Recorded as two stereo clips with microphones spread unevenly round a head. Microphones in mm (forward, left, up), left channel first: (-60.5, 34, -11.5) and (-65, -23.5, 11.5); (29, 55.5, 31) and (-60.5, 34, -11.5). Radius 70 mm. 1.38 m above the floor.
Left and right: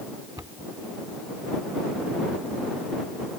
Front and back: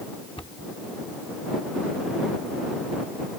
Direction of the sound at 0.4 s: 45° right.